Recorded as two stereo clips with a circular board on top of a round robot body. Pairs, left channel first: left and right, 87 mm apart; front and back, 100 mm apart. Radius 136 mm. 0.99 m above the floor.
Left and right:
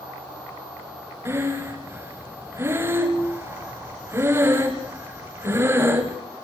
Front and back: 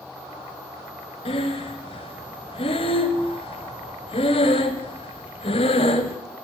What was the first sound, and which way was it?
Breathing, 30° right.